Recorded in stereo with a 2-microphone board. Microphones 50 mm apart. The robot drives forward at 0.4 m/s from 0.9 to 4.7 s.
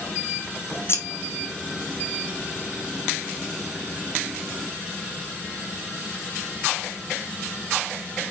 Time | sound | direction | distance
0.9 | scissors | 55° left (ahead or behind) | 0.8 m